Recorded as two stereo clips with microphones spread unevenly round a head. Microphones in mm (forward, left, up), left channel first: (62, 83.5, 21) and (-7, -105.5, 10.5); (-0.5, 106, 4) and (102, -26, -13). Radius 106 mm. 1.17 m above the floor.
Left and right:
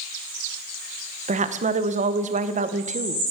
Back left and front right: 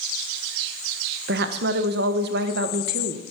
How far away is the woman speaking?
About 1.0 m.